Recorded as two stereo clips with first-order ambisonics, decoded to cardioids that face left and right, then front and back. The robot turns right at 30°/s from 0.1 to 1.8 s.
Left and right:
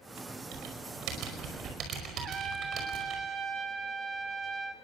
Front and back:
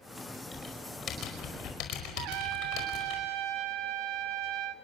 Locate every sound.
0.5 s typing on a keyboard: 75° right, 5 m; by 3.2 s 35° right, 5 m
2.2 s a trumpet: 155° right, 2.0 m